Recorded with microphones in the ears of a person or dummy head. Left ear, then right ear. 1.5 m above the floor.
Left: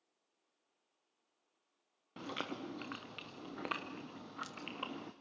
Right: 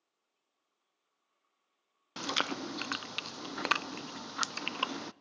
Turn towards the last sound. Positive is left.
turn(degrees=-65)  # may be behind; listen again after turning